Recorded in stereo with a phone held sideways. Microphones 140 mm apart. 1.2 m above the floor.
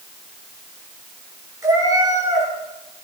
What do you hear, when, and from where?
1.6 s a cat meowing: 25° right (ahead or behind), 10 m